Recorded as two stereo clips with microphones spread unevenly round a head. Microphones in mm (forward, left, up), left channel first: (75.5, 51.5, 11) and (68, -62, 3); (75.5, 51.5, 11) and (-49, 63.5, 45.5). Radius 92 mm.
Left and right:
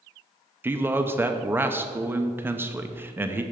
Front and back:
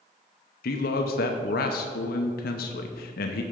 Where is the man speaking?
20° right, 0.6 m.